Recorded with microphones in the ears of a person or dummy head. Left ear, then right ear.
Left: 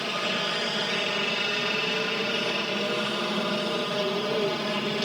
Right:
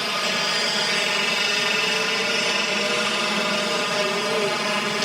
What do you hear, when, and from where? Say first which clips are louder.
0.0 s a helicopter: right 4 dB; 60° right (ahead or behind); by 5.1 s 45° right (ahead or behind)